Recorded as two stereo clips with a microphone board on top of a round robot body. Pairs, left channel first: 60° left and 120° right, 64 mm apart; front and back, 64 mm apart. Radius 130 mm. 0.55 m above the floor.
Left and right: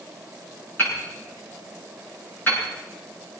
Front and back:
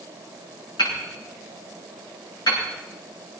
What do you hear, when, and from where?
0.8 s hammering: 5° right, 8.5 m